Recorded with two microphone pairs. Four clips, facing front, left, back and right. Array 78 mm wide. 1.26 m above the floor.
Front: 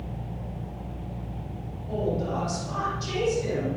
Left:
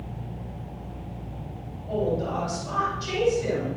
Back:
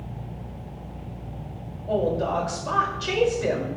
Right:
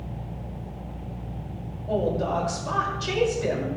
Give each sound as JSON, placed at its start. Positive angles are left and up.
{"t": 1.9, "sound": "a woman speaking", "azimuth_deg": -155, "distance_m": 6.0}